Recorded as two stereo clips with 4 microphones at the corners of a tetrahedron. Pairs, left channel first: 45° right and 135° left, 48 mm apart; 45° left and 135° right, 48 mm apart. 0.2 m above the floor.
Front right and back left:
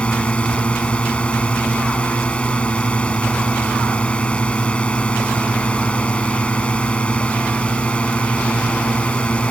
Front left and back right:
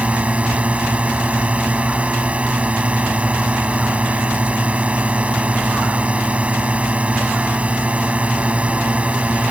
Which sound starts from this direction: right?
A drone, at 0.0 s.